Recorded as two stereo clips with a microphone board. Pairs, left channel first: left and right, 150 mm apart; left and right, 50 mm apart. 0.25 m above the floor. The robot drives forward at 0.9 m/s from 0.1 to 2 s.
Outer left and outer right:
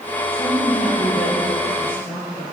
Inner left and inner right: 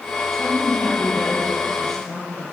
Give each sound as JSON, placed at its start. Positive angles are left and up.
{"t": 0.3, "sound": "a woman speaking", "side_deg": 10, "distance_m": 4.5}